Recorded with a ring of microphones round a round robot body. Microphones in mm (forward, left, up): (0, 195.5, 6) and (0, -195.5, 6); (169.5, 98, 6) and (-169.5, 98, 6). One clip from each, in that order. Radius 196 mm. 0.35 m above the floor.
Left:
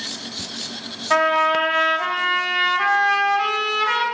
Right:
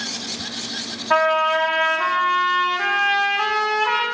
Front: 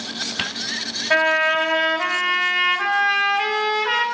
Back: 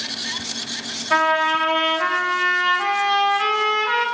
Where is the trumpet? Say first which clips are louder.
Even, even; straight ahead, 2.5 m.